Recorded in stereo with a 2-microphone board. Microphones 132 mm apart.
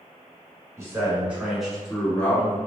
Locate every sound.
0.8 s a man speaking: 20° right (ahead or behind), 1.2 m; by 2.6 s 20° left (ahead or behind), 1.4 m